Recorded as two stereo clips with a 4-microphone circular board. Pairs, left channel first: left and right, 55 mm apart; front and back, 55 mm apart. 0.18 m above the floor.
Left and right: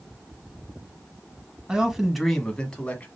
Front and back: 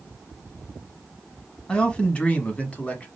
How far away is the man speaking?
About 1.0 m.